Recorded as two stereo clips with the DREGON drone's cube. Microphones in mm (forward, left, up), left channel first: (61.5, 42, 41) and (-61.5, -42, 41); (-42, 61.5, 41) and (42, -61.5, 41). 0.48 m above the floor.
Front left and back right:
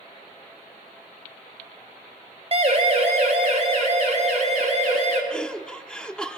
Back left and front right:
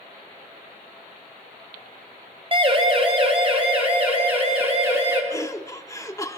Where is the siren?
105° right, 3.5 m.